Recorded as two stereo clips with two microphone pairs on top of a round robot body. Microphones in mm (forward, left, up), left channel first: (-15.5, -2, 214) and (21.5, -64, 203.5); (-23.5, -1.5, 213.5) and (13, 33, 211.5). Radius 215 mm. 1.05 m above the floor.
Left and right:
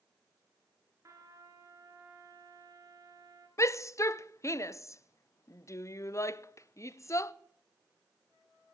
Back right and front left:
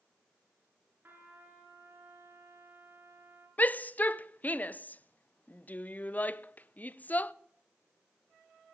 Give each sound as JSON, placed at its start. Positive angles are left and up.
{"t": 1.0, "sound": "a trumpet", "azimuth_deg": -10, "distance_m": 3.0}
{"t": 3.6, "sound": "a shout", "azimuth_deg": 170, "distance_m": 0.7}